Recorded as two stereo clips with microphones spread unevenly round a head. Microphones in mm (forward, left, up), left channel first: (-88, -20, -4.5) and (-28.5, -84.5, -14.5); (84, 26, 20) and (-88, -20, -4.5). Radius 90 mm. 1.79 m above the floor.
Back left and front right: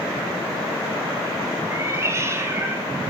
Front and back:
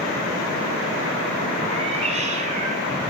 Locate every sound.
1.7 s a cat meowing: 105° right, 7.5 m; by 2.8 s 110° right, 7 m